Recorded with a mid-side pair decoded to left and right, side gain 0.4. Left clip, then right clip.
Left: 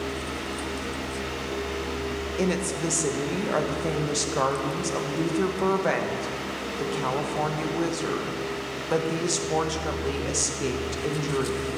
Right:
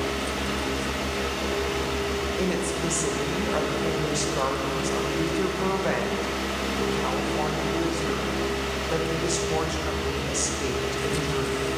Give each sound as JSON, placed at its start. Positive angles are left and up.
{"t": 0.0, "sound": "a fan", "azimuth_deg": -65, "distance_m": 1.3}
{"t": 2.4, "sound": "a woman speaking", "azimuth_deg": 25, "distance_m": 1.6}